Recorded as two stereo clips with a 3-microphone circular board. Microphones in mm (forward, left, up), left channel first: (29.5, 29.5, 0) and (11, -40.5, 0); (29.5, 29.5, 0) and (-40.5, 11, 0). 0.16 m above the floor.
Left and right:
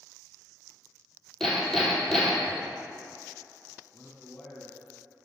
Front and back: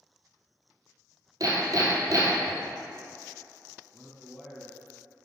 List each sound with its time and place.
1.4 s hammering: 155° left, 1.2 m
3.9 s a man speaking: 85° left, 1.0 m